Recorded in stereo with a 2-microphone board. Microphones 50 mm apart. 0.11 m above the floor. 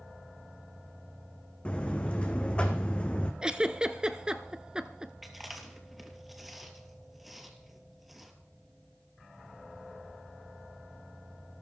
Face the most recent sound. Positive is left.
turn(degrees=-5)  # may be behind; listen again after turning